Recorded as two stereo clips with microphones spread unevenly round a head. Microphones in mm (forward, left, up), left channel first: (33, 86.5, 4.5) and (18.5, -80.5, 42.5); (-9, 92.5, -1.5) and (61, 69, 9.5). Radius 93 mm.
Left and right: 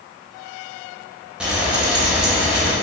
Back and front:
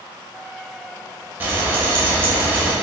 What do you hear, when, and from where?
1.4 s frying: 35° right, 0.6 m